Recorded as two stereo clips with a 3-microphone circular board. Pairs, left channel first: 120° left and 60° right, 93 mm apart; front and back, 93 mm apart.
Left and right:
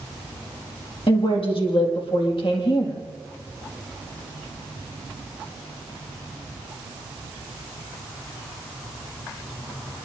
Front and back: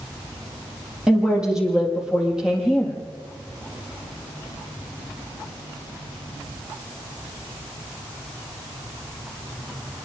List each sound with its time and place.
1.1 s a woman speaking: 95° left, 6 m